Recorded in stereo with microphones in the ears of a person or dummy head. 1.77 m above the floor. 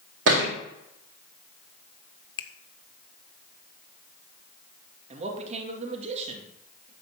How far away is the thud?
About 2.5 m.